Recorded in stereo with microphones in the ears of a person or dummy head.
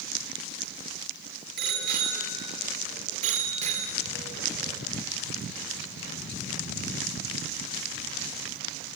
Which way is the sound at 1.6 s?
55° right (ahead or behind).